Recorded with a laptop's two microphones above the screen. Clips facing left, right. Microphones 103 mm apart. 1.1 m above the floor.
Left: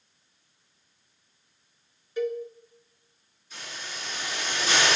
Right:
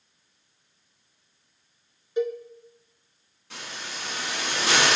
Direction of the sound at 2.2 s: 20° right (ahead or behind).